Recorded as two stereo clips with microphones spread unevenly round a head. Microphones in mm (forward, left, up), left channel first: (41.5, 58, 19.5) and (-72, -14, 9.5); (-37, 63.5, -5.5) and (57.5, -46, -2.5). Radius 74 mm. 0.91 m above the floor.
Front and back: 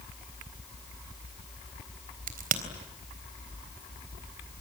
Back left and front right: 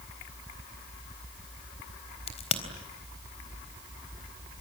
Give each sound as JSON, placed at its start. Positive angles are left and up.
{"t": 2.3, "sound": "a crack", "azimuth_deg": -175, "distance_m": 3.5}